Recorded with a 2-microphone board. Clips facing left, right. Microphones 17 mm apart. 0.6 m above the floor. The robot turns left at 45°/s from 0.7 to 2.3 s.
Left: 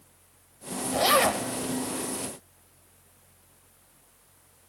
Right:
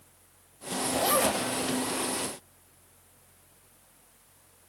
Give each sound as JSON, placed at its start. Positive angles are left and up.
{"t": 0.9, "sound": "a zipper", "side_deg": 35, "distance_m": 1.1}